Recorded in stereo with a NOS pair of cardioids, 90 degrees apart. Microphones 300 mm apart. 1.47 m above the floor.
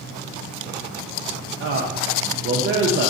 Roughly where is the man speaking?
Ahead right.